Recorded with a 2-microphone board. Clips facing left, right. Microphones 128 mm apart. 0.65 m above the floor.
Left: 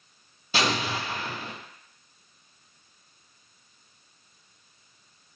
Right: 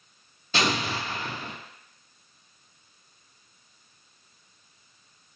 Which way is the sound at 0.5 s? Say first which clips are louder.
Even; 10° left (ahead or behind).